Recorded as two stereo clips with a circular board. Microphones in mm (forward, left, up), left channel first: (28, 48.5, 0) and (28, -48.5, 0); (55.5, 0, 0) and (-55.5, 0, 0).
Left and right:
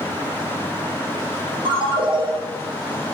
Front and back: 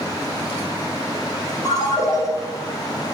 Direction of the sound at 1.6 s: 60° right.